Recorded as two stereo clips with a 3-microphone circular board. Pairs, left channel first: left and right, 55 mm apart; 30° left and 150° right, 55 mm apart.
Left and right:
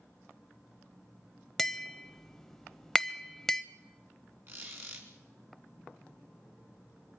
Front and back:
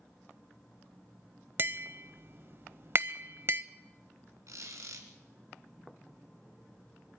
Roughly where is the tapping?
Behind.